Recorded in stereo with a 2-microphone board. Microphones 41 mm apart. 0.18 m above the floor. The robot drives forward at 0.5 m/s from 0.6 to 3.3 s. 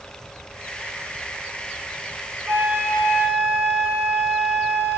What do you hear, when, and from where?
2.5 s a flute: 45° right (ahead or behind), 3.5 m